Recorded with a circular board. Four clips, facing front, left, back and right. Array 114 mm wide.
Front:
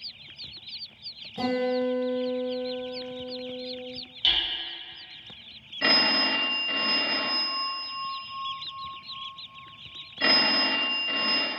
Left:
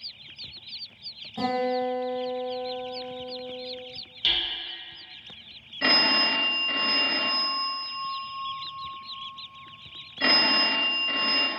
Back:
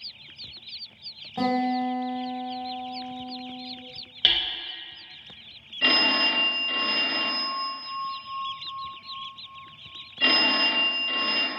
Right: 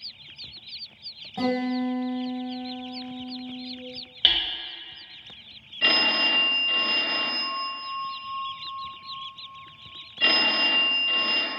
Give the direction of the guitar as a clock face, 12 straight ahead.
5 o'clock.